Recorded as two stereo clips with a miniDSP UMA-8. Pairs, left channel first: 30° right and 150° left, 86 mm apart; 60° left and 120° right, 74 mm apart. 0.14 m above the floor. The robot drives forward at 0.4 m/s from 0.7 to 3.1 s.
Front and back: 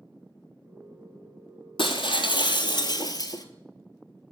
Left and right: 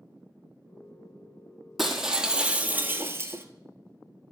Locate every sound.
1.8 s breaking glass: 35° right, 0.9 m; by 3.5 s 70° right, 0.6 m